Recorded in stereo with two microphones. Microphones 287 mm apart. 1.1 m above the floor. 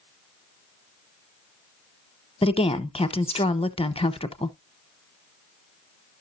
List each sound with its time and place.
2.4 s a woman speaking: 20° left (ahead or behind), 0.9 m